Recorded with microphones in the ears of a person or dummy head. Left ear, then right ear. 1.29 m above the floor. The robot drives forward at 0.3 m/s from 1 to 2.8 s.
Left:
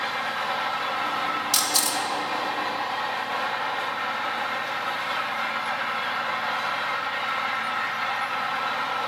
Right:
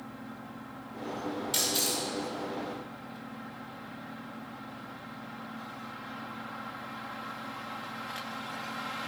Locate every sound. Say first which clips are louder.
1.5 s a camera shutter: left 4 dB; 60° left (ahead or behind), 1.8 m; by 2.0 s 65° left (ahead or behind), 1.8 m